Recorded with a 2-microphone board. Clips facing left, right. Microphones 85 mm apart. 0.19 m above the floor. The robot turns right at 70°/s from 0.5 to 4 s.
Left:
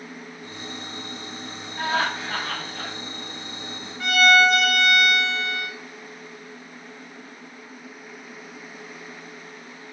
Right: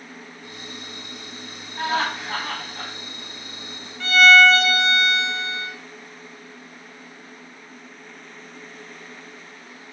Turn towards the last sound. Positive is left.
turn(degrees=15)  # may be behind; listen again after turning